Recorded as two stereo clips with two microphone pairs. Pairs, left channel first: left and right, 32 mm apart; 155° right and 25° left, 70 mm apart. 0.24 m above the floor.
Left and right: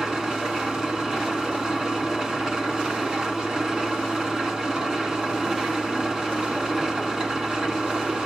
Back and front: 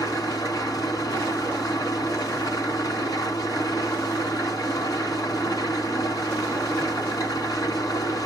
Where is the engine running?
160° right, 1.6 m.